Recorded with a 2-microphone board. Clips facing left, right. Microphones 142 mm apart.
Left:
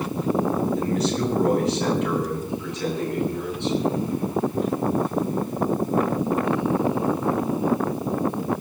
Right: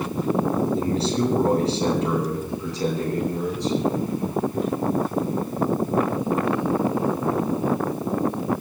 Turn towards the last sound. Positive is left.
turn(degrees=-35)  # may be behind; listen again after turning